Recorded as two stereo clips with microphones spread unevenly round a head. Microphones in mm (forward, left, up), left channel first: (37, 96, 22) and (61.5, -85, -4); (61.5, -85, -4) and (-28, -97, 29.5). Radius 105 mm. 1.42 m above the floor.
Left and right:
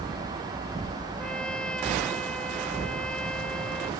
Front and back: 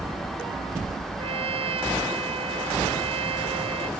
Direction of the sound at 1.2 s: 175° right.